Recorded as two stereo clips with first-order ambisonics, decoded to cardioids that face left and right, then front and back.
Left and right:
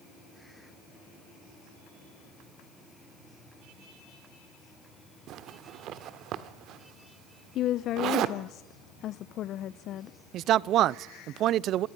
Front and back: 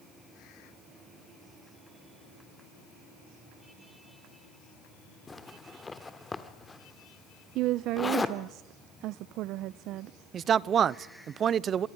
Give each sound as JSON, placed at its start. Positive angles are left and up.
{"t": 5.3, "sound": "a zipper", "azimuth_deg": -75, "distance_m": 1.3}
{"t": 7.5, "sound": "a woman speaking", "azimuth_deg": 140, "distance_m": 0.5}
{"t": 10.3, "sound": "a man speaking", "azimuth_deg": -125, "distance_m": 0.5}